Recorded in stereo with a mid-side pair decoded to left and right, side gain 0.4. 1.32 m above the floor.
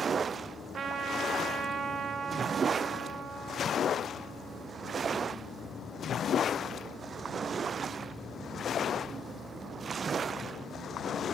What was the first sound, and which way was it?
A trumpet, 60° right.